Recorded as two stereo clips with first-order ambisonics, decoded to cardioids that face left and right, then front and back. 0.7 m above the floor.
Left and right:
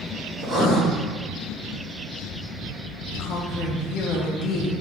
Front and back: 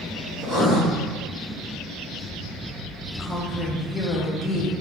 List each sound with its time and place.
0.4 s writing: 140° right, 1.4 m
3.2 s a woman speaking: 75° left, 0.5 m